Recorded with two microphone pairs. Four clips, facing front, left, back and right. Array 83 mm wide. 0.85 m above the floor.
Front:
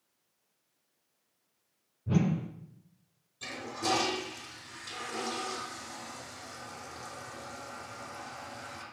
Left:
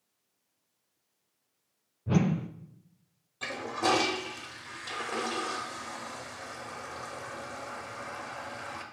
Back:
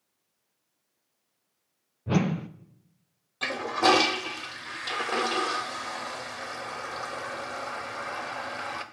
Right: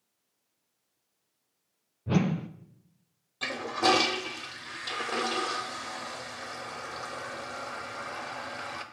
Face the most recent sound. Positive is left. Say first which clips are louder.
# right 3 dB, back 11 dB
turn(degrees=-170)